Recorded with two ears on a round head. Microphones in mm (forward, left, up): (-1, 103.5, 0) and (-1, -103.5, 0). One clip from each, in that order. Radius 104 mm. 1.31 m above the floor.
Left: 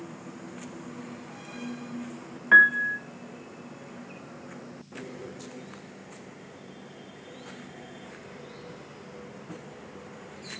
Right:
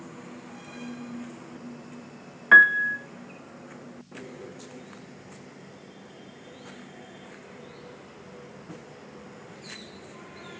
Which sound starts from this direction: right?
A piano, at 2.5 s.